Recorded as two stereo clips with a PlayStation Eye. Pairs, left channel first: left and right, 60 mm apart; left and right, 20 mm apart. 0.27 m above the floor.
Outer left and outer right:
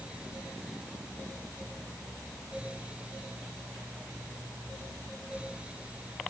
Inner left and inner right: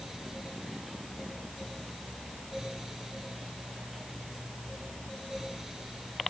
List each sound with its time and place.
Only background noise.